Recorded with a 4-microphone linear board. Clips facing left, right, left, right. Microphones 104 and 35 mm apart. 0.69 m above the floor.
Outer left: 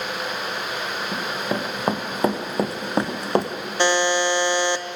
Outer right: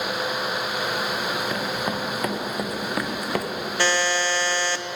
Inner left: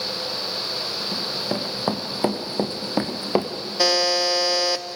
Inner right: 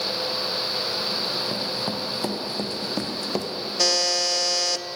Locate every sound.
1.1 s running footsteps: 30° left (ahead or behind), 4 m; by 3.5 s 25° left (ahead or behind), 2.5 m
3.8 s a buzzer: 20° left (ahead or behind), 1.1 m